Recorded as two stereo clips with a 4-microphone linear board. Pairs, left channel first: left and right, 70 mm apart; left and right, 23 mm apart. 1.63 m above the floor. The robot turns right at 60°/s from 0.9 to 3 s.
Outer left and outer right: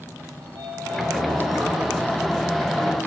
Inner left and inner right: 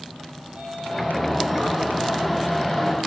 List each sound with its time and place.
0.4 s a sliding door: 105° right, 4.5 m; by 3.1 s 20° left, 4.5 m